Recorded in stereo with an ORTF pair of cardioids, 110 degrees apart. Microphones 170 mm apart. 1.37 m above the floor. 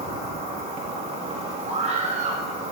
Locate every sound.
0.0 s an insect: 40° right, 4.5 m
1.7 s a scream: 40° right, 6 m